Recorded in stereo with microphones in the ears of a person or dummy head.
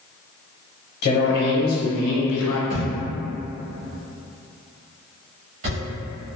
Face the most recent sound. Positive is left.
turn(degrees=-35)  # may be behind; listen again after turning